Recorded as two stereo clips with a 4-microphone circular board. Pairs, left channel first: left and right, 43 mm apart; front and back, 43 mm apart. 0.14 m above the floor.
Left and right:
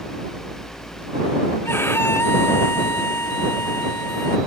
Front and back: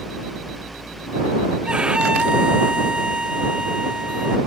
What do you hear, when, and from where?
1.6 s a violin: 115° left